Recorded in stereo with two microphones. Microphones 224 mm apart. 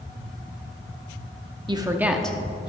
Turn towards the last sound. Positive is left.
turn(degrees=20)  # may be behind; listen again after turning